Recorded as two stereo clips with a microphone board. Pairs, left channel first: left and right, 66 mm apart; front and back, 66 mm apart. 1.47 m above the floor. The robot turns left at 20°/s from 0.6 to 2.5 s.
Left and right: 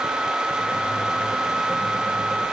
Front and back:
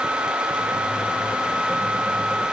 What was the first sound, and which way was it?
Only background noise.